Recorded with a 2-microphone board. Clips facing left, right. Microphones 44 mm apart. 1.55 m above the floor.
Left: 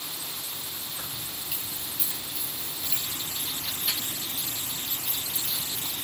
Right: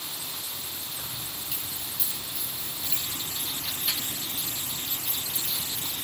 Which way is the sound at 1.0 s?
15° left (ahead or behind).